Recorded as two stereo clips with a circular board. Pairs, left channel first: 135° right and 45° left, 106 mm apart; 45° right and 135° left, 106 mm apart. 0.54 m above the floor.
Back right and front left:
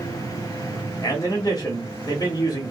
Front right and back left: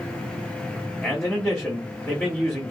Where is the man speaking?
125° right, 1.0 m.